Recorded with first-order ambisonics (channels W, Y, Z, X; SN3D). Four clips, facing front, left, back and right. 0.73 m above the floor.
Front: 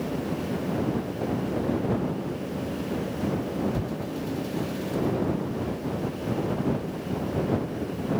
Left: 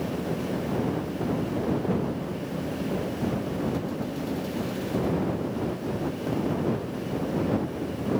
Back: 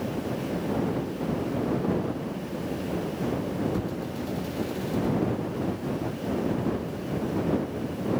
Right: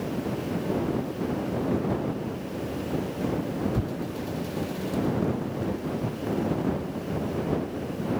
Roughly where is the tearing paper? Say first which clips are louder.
Left 1 dB, even; right.